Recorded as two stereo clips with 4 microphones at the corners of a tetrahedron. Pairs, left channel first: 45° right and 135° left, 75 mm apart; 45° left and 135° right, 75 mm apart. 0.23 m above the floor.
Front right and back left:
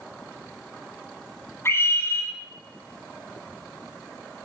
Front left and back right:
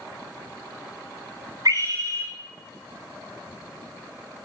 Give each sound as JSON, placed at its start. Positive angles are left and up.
{"t": 1.6, "sound": "a scream", "azimuth_deg": -100, "distance_m": 6.0}